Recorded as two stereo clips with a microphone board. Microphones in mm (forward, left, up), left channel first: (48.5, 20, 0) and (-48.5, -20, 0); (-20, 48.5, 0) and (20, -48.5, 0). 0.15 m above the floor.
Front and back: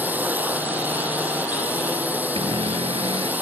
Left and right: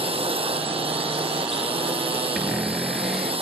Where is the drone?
85° right.